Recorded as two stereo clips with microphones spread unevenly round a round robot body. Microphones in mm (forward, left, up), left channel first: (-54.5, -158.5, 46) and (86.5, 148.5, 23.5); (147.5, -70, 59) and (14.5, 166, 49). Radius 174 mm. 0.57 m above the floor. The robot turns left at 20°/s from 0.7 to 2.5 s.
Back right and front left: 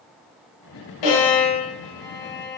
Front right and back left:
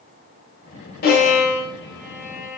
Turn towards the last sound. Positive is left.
turn(degrees=-155)